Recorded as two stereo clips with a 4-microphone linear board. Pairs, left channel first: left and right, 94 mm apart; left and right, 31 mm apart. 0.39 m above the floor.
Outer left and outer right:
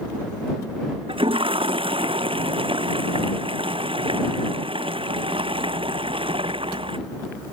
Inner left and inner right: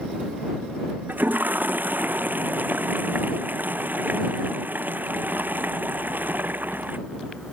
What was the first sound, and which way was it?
A toilet flushing, 70° right (ahead or behind).